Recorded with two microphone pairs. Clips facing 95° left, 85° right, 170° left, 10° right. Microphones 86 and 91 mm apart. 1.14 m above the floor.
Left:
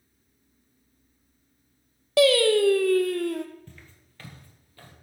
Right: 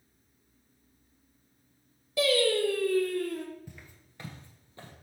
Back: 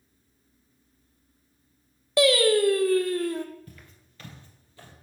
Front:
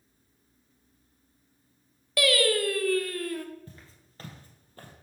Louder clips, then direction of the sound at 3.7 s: Even, back 1 dB; 20° right.